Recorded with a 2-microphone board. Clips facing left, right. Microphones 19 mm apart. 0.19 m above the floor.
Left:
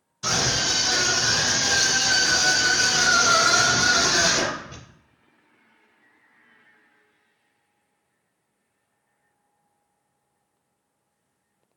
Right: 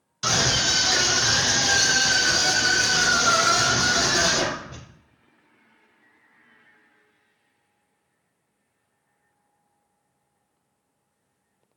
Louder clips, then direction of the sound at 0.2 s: Right 2 dB; 45° right (ahead or behind).